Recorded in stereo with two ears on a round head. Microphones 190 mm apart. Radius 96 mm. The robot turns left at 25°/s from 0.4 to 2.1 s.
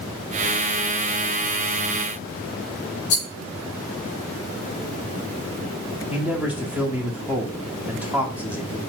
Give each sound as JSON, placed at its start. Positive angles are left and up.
{"t": 3.1, "sound": "a rattle", "side_deg": 50, "distance_m": 0.7}
{"t": 6.1, "sound": "a man speaking", "side_deg": -5, "distance_m": 1.0}